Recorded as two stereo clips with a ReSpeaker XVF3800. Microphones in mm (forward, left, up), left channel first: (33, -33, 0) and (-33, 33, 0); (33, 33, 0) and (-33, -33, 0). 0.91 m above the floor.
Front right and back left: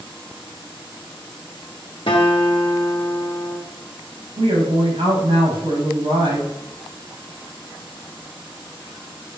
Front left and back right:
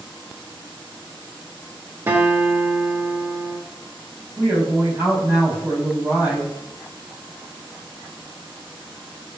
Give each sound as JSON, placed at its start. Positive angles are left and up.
{"t": 2.1, "sound": "a guitar", "azimuth_deg": -70, "distance_m": 1.3}
{"t": 4.4, "sound": "a woman speaking", "azimuth_deg": 155, "distance_m": 3.5}